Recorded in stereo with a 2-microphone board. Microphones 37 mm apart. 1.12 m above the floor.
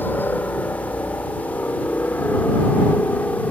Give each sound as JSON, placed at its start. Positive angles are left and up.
{"t": 0.0, "sound": "a helicopter", "side_deg": 70}